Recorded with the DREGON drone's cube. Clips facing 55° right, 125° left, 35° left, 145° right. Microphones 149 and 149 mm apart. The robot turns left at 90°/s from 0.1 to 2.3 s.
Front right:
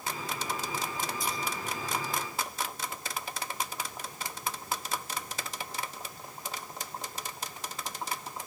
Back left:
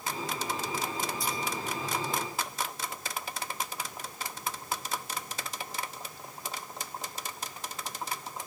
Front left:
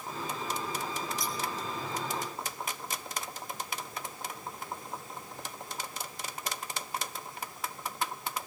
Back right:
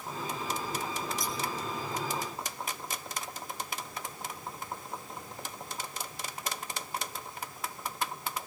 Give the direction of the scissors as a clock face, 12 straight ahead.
6 o'clock.